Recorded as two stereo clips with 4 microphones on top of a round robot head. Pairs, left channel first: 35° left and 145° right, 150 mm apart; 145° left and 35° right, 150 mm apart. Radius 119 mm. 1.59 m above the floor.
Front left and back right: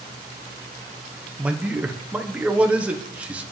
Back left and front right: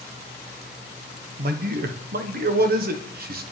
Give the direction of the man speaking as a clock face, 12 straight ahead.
2 o'clock.